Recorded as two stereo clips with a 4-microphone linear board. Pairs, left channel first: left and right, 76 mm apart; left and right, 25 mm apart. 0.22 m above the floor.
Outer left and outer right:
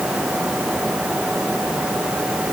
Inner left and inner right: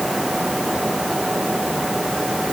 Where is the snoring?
No snoring in this recording.